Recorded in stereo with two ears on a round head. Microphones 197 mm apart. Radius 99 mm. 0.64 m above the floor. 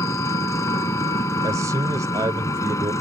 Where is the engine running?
15° left (ahead or behind).